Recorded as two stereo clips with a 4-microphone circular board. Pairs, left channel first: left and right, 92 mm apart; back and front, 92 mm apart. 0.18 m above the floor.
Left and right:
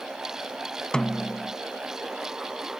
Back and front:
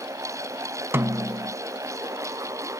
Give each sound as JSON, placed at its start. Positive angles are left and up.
{"t": 0.9, "sound": "a snare drum", "azimuth_deg": 20}